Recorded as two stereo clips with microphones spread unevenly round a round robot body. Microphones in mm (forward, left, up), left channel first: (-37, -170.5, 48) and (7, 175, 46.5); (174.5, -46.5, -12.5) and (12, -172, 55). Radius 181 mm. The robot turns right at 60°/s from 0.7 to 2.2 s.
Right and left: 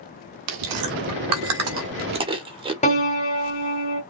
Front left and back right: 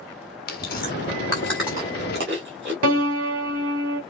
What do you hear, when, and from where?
0.5 s chewing: 65° left, 1.6 m; by 2.7 s 155° left, 1.6 m
2.8 s a piano: 170° right, 2.5 m